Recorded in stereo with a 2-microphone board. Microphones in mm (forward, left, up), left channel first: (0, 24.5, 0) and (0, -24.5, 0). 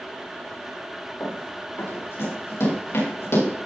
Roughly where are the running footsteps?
Left.